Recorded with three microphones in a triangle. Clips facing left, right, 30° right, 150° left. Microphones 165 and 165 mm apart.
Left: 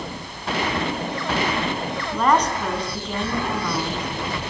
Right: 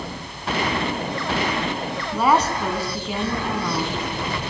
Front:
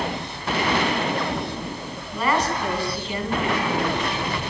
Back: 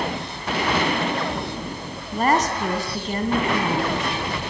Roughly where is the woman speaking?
Behind.